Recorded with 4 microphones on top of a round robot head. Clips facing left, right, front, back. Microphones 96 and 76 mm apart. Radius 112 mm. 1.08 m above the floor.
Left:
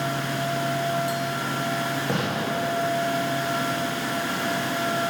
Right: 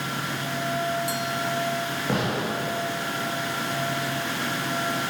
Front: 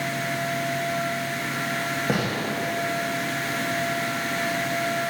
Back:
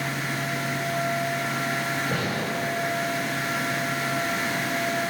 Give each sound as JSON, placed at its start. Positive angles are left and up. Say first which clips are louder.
{"t": 2.1, "sound": "a gunshot", "louder": "even, front 2 dB", "azimuth_deg": -5, "distance_m": 1.8}